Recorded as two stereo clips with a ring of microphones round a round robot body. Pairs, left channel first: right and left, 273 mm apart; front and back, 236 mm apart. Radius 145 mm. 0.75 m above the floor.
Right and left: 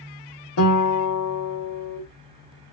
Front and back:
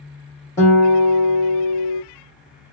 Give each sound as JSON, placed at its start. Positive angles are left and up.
{"t": 0.6, "sound": "a guitar", "azimuth_deg": -80, "distance_m": 2.5}